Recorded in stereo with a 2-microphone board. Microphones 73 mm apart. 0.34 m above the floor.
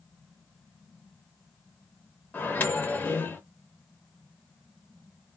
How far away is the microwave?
About 0.7 m.